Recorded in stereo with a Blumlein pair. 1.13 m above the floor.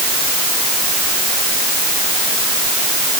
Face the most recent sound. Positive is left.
No sound to turn to.